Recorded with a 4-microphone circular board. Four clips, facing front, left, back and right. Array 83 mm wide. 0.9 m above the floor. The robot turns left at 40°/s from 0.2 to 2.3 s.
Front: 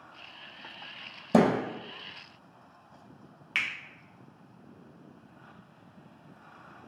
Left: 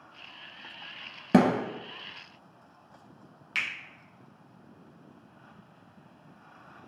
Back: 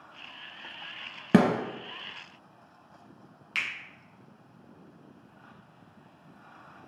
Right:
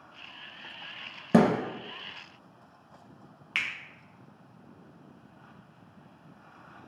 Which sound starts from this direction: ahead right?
A finger snap, at 3.5 s.